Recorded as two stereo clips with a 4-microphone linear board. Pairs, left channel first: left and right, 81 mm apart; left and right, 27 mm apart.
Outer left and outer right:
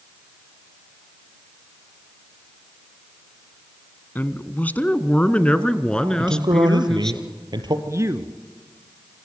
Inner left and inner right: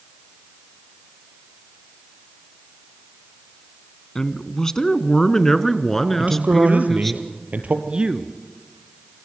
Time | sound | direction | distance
4.2 | a man speaking | 25° left (ahead or behind) | 1.3 m
6.2 | a man speaking | 65° right (ahead or behind) | 3.5 m
7.9 | a man speaking | 40° right (ahead or behind) | 1.5 m